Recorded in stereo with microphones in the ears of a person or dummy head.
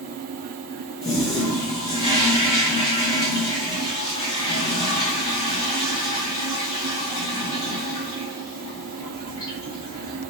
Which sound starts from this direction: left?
A toilet flushing, at 1.0 s.